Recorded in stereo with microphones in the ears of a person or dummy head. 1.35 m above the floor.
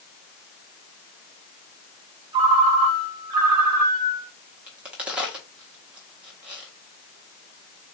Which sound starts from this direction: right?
A ringtone, at 2.3 s.